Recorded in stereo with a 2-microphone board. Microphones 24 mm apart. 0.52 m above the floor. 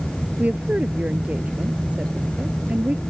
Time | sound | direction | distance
0.4 | a woman speaking | 75° right (ahead or behind) | ?